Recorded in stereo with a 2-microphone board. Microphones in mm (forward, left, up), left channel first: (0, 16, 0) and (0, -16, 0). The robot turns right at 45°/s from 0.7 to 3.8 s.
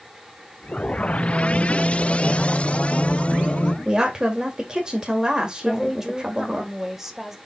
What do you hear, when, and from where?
1.1 s singing: 65° right, 0.6 m; by 3.8 s 55° left, 0.6 m
3.9 s a woman speaking: 25° right (ahead or behind), 2 m
5.7 s a woman speaking: 15° right (ahead or behind), 1.5 m